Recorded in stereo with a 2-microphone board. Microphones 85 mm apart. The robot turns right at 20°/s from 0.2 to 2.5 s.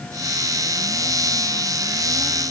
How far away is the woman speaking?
I don't hear a woman speaking.